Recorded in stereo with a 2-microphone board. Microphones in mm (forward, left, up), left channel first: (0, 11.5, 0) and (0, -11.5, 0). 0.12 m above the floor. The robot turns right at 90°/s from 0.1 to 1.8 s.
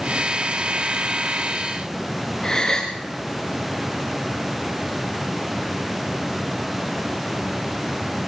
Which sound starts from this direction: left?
A gasp, at 2.4 s.